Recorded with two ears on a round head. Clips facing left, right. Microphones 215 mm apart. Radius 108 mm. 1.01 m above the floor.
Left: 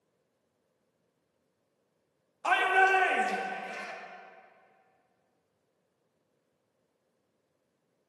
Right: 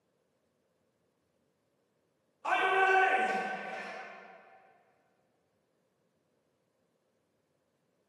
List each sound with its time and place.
2.4 s a shout: 60° left (ahead or behind), 1.2 m